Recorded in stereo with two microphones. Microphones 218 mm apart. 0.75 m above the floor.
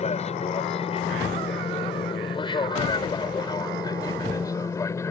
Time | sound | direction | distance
0.0 | an aircraft | 30° left (ahead or behind) | ?